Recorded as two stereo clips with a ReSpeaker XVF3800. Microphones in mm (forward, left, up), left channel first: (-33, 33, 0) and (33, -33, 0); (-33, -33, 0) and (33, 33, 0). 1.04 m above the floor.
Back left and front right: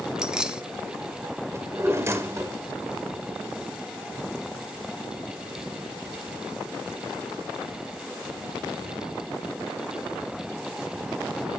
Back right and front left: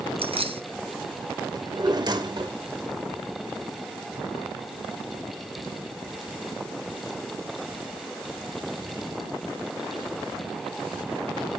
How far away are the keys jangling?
About 1.2 m.